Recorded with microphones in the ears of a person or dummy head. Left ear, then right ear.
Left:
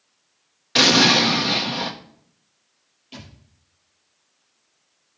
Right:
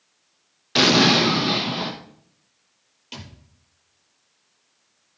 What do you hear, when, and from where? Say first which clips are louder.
0.8 s an explosion: left 2 dB; 10° left (ahead or behind), 1.1 m
3.1 s a thud: right 3 dB; 50° right (ahead or behind), 7.5 m